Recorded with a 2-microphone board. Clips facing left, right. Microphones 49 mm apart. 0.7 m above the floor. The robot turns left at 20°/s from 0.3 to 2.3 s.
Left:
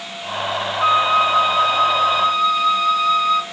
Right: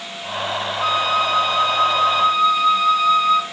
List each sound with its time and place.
0.8 s a flute: 25° left (ahead or behind), 0.7 m; by 3.4 s centre (ahead or behind), 0.7 m